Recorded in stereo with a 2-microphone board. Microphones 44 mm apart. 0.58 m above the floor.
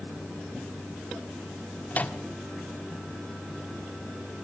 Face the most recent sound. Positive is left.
turn(degrees=40)  # may be behind; listen again after turning